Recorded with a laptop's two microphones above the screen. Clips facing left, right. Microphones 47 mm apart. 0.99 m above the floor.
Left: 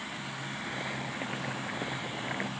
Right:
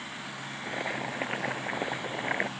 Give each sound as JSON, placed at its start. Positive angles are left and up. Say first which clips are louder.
{"t": 0.6, "sound": "boiling", "louder": "right 5 dB", "side_deg": -35}